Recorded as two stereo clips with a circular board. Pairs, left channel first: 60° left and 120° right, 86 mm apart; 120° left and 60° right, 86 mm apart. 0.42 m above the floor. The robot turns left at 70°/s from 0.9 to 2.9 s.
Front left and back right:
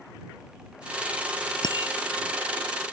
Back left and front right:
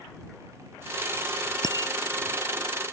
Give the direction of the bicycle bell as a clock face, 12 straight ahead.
9 o'clock.